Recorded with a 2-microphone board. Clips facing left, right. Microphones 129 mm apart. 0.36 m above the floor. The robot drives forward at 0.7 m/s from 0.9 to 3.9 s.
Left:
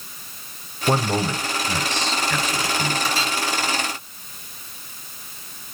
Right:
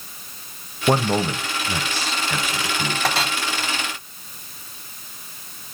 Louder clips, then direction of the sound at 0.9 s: Right 2 dB; 15° right (ahead or behind).